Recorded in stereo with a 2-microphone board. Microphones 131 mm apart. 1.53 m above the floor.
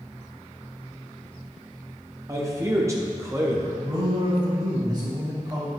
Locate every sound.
2.3 s a man speaking: 20° right (ahead or behind), 1.3 m
3.8 s a man speaking: 30° right (ahead or behind), 3 m